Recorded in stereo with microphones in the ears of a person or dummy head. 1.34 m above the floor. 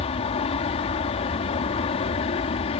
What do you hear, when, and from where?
0.0 s an aircraft: 30° left (ahead or behind)